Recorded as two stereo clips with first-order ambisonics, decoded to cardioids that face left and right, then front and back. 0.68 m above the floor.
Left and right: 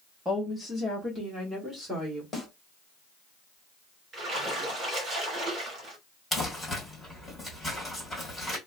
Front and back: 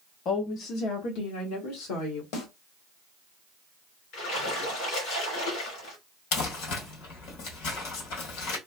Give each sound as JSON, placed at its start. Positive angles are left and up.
{"t": 0.2, "sound": "a woman speaking", "azimuth_deg": -5, "distance_m": 0.8}
{"t": 2.3, "sound": "a snare drum", "azimuth_deg": 15, "distance_m": 1.7}
{"t": 4.1, "sound": "a splash", "azimuth_deg": -30, "distance_m": 2.5}
{"t": 6.3, "sound": "crumpling", "azimuth_deg": 10, "distance_m": 1.9}